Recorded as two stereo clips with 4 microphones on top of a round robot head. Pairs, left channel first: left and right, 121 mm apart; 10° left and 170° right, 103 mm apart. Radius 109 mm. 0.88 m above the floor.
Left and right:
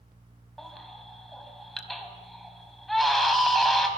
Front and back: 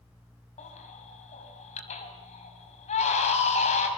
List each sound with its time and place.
0.6 s a baby crying: straight ahead, 4.5 m